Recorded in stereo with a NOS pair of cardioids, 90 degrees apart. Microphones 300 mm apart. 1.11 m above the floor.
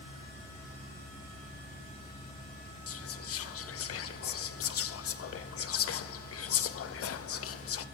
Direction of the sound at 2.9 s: 50° left.